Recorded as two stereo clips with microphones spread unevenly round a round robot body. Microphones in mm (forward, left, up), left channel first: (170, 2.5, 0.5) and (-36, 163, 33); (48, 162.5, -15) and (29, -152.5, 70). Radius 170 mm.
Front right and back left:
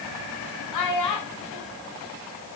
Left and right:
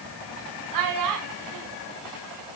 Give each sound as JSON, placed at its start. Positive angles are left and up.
{"t": 0.7, "sound": "a child speaking", "azimuth_deg": -70, "distance_m": 3.5}